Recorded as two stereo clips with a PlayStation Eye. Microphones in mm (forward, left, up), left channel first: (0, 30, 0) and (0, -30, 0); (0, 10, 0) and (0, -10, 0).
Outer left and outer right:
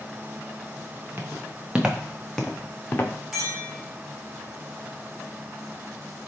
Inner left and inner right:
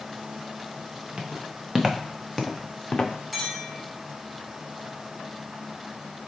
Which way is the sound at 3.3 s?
10° right (ahead or behind).